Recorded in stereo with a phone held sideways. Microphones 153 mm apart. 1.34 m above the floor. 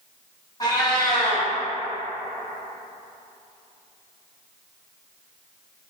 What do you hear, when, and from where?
0.6 s a cat meowing: 25° left (ahead or behind), 1.0 m